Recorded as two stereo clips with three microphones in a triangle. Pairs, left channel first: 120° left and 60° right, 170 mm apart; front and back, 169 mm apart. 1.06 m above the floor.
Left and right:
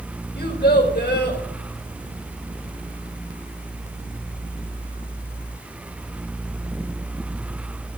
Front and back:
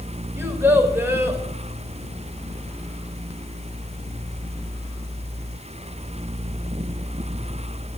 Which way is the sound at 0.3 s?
105° left.